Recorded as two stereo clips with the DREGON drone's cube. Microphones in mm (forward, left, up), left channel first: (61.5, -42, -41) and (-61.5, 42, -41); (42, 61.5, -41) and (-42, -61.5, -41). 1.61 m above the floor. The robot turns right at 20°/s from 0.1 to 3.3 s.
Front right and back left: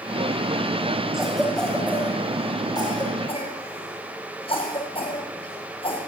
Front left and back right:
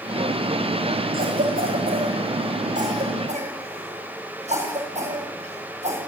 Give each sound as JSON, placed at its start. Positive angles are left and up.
{"t": 1.1, "sound": "a cough", "azimuth_deg": -130, "distance_m": 9.5}